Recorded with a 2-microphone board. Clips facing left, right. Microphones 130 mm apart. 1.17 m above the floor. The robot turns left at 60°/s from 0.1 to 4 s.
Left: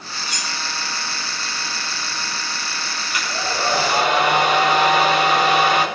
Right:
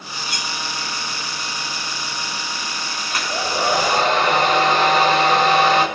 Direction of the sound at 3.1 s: 135° right.